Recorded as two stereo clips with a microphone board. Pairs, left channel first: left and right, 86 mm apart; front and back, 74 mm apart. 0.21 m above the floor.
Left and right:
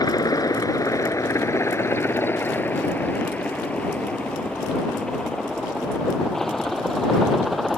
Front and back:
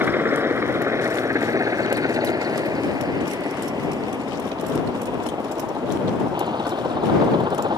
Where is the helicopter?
120° left; by 7.8 s straight behind.